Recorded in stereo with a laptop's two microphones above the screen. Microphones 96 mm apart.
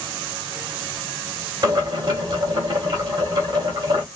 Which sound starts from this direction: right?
Boiling, at 1.6 s.